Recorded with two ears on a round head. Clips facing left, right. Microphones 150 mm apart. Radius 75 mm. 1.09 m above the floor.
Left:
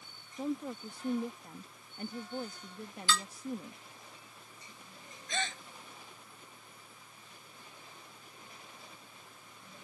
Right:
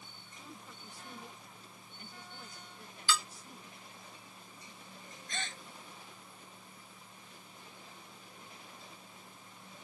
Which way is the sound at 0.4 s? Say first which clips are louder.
Left 17 dB; 50° left (ahead or behind).